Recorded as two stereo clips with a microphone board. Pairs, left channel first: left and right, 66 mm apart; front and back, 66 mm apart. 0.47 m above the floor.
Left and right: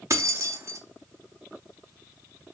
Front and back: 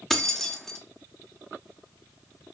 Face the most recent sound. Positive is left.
turn(degrees=-85)